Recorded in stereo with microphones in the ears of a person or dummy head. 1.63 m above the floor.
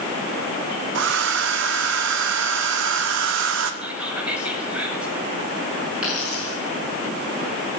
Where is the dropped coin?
5° right (ahead or behind), 7.5 m.